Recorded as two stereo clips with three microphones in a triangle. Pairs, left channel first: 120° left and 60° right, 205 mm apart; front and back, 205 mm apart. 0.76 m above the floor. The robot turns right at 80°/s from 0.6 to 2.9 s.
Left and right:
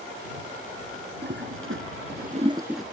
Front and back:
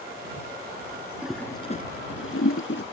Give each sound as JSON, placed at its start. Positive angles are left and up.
{"t": 1.2, "sound": "a toilet flushing", "azimuth_deg": -95}